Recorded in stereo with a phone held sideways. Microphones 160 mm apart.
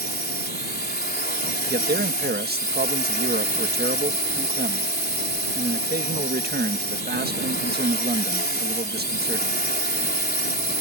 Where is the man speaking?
70° right (ahead or behind).